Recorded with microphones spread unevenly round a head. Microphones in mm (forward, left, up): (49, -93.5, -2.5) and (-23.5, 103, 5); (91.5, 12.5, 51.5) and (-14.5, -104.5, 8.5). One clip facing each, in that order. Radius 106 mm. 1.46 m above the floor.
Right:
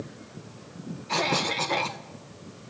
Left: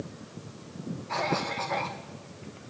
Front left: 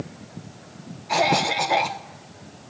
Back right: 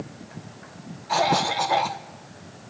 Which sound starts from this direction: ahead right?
A cough, at 1.1 s.